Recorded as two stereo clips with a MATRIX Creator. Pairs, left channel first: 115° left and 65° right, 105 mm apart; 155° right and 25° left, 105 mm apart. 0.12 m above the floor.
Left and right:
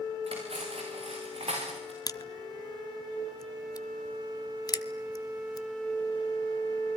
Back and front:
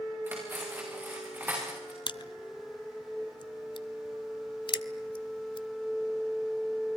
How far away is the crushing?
About 0.7 m.